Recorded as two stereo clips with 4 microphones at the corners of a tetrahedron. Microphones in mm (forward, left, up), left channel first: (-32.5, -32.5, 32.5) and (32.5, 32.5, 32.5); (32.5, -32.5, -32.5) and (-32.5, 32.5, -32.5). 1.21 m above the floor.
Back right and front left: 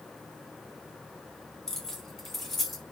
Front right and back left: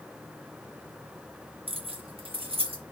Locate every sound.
1.7 s keys jangling: 140° left, 0.6 m; by 2.8 s 135° left, 1.3 m